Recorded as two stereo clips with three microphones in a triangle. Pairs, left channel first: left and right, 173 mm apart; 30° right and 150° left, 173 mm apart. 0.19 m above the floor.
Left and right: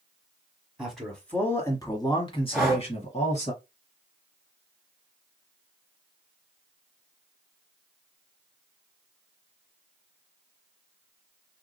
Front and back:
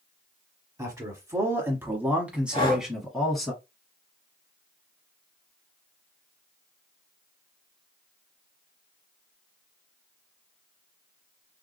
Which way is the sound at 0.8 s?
175° right.